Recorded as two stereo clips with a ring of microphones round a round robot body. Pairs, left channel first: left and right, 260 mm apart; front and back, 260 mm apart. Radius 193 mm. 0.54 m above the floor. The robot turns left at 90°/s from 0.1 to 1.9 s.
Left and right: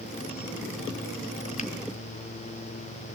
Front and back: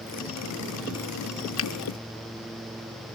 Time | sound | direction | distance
1.6 | a finger snap | 30° left | 1.4 m